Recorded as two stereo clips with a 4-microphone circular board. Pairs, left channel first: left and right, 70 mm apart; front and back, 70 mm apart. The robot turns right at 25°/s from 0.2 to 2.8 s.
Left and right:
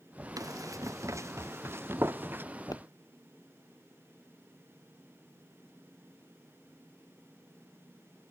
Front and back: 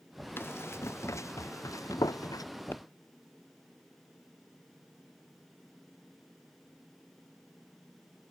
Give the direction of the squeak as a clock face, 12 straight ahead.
I don't hear a squeak.